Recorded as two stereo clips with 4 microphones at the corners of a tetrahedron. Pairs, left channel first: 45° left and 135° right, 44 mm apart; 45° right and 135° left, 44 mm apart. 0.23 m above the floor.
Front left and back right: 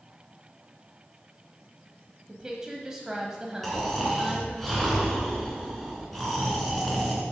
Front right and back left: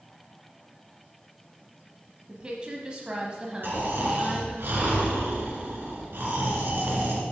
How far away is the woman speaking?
About 1.1 m.